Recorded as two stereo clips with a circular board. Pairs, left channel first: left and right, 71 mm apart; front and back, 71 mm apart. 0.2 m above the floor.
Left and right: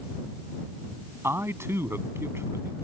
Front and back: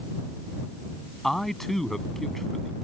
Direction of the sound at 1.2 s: 85° right.